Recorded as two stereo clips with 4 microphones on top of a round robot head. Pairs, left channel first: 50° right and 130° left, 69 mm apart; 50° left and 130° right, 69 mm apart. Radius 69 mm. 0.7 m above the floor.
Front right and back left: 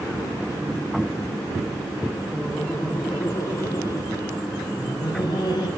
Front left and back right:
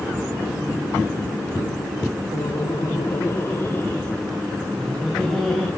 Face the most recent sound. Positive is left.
turn(degrees=-40)